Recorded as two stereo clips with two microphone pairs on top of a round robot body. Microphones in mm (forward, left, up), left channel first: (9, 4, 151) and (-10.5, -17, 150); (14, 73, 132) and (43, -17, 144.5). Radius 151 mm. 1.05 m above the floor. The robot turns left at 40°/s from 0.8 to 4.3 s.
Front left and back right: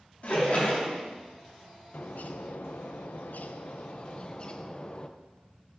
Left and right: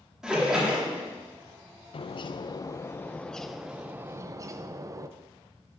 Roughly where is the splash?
Ahead.